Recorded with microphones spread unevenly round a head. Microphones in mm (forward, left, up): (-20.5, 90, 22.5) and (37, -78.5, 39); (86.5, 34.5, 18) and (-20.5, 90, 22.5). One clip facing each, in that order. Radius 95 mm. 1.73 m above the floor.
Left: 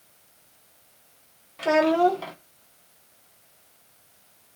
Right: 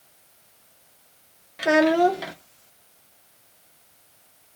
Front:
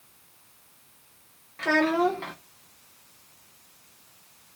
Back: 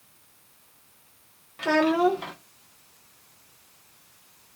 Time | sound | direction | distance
1.6 | a child speaking | 135° right | 0.8 m